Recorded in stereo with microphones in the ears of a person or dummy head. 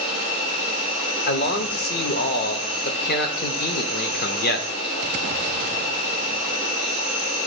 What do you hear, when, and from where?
0.0 s an insect: 60° left (ahead or behind), 1.6 m
1.3 s a man speaking: 50° left (ahead or behind), 0.7 m